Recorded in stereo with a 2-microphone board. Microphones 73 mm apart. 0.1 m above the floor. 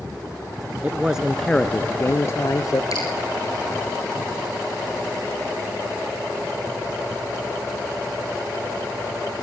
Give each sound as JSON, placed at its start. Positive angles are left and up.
{"t": 0.8, "sound": "a man speaking", "side_deg": -20, "distance_m": 1.1}
{"t": 2.9, "sound": "dripping", "side_deg": 55, "distance_m": 5.0}